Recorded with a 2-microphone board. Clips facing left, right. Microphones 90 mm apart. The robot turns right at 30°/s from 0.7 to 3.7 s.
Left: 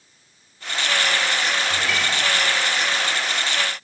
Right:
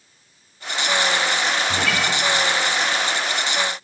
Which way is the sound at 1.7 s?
80° right.